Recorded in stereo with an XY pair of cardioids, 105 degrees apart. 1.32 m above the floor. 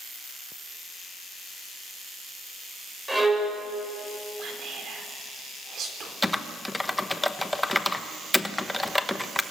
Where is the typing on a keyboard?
10° left, 1.0 m.